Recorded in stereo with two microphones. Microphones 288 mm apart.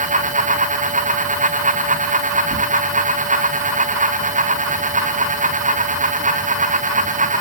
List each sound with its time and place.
2.5 s tearing paper: 40° right (ahead or behind), 4 m